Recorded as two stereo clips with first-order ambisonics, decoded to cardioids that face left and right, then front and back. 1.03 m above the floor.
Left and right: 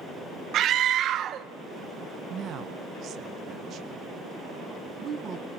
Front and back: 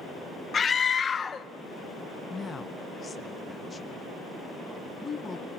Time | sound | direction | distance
0.5 | a scream | 60° right | 0.5 m
2.3 | a woman speaking | 65° right | 0.8 m